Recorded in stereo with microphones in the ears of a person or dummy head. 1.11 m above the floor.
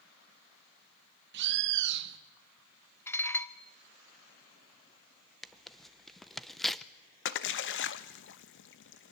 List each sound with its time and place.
1.3 s a bird: 60° right (ahead or behind), 0.9 m
3.1 s dishes clattering: 10° left (ahead or behind), 0.8 m
5.4 s tearing paper: 5° right (ahead or behind), 0.5 m
7.2 s a splash: 55° left (ahead or behind), 1.0 m